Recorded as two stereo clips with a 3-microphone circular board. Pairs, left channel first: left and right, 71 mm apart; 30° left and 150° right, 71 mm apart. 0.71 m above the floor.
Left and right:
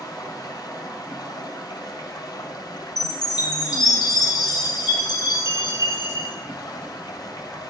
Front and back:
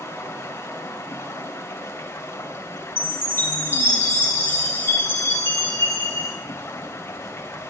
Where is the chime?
85° left, 3 m.